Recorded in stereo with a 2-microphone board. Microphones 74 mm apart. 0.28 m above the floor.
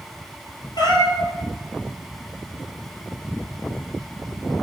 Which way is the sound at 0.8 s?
70° left (ahead or behind).